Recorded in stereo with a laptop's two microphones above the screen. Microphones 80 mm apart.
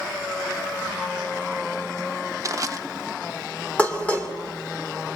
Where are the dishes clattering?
15° left (ahead or behind), 2.5 m.